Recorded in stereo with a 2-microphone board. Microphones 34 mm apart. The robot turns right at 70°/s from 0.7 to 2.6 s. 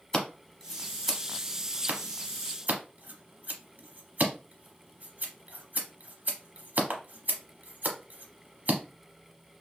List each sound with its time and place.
0.1 s scissors: 20° left (ahead or behind), 0.9 m; by 8.8 s 60° right (ahead or behind), 0.9 m